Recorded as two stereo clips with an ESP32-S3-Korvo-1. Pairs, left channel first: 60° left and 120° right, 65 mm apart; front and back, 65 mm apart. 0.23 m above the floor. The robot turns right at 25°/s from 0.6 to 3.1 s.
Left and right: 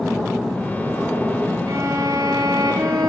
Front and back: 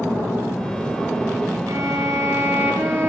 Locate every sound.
1.7 s a violin: 150° right, 2.5 m; by 3.1 s 115° right, 2.5 m